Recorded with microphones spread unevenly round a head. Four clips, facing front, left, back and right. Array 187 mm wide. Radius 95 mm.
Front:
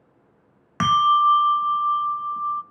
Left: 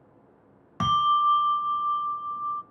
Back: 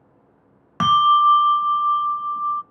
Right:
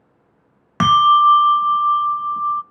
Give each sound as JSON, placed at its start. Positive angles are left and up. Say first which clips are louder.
{"t": 0.8, "sound": "a bell", "louder": "right 10 dB, back 2 dB", "azimuth_deg": -75, "distance_m": 0.6}